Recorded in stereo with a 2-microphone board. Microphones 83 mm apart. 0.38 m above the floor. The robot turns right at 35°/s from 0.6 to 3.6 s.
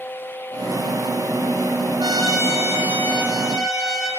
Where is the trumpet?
55° right, 5 m; by 4.1 s straight ahead, 5 m.